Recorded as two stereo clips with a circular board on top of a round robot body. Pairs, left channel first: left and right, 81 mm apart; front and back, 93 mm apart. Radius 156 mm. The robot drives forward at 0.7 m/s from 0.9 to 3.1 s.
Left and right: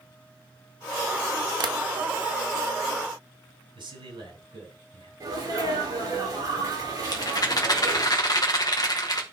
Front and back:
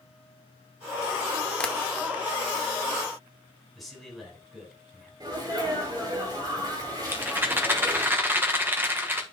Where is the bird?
I don't hear a bird.